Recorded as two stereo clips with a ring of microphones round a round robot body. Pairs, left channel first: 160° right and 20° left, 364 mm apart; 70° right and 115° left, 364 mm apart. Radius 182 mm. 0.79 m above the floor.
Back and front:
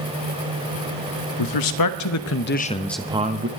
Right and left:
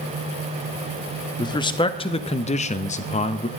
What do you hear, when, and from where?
1.4 s a man speaking: 145° right, 1.3 m; by 3.5 s 5° right, 0.8 m